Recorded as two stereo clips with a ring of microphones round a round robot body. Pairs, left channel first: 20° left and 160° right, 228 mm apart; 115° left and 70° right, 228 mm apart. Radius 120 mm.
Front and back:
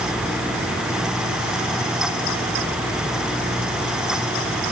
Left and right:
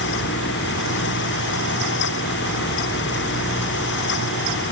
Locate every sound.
Only background noise.